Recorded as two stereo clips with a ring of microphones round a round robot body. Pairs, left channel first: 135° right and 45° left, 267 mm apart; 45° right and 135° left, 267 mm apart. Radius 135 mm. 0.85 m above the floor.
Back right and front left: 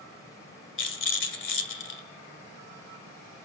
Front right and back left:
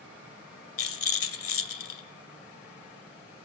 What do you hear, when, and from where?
0.8 s a rattle: 85° right, 2 m